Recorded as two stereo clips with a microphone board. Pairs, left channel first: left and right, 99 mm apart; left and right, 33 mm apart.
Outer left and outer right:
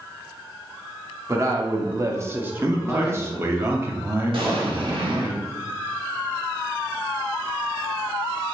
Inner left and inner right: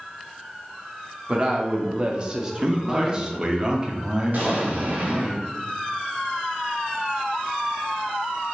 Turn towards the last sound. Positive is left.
turn(degrees=-60)  # may be behind; listen again after turning